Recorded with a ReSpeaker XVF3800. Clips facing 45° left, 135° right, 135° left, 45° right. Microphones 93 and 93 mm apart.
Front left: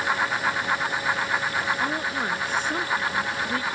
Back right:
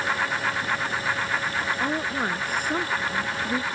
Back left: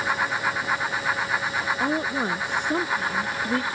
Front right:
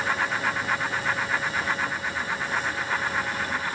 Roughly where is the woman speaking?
Behind left.